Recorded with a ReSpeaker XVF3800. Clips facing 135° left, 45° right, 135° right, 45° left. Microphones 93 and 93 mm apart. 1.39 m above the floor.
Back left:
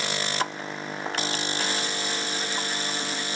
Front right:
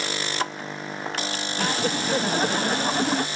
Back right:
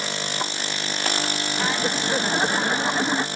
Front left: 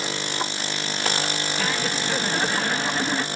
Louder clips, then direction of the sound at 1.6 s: Front right 5 dB, back right 3 dB; 65° right.